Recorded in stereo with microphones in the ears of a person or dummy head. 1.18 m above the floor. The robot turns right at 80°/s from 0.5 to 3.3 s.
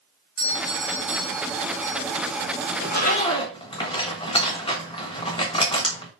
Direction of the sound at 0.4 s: 135° right.